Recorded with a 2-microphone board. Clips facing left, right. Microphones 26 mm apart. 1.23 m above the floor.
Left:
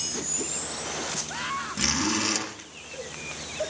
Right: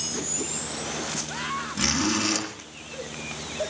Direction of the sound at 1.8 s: Centre (ahead or behind).